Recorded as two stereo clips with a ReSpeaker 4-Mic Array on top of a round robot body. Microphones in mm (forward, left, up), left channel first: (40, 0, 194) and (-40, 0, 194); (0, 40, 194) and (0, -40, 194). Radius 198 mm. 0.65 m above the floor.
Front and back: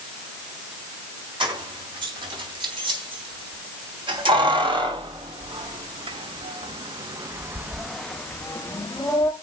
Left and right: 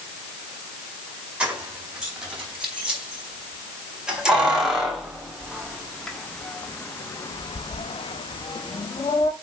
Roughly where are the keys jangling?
Behind.